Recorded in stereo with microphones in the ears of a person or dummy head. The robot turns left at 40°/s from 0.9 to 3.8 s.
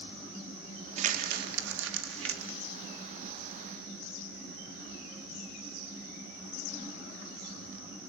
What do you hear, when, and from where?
1.0 s crumpling: 40° right (ahead or behind), 1.9 m; by 2.6 s 70° right (ahead or behind), 1.9 m